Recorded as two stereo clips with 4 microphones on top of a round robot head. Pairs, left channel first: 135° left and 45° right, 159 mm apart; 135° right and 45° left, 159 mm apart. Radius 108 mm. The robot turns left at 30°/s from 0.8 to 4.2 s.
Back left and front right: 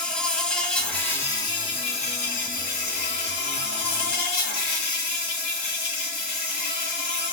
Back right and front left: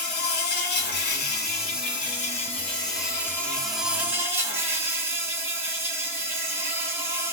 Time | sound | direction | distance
0.0 | an insect | 140° right | 2 m